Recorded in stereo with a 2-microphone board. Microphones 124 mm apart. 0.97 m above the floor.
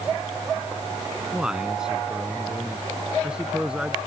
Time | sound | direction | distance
1.3 | a man speaking | 5° right (ahead or behind) | ?